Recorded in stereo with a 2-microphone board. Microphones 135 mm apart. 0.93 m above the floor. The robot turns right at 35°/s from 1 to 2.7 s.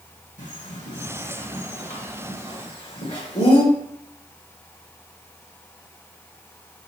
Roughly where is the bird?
Left.